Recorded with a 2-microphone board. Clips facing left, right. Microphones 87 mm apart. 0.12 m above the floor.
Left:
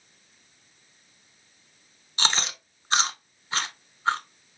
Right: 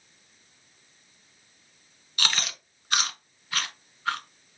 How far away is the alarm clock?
I don't hear an alarm clock.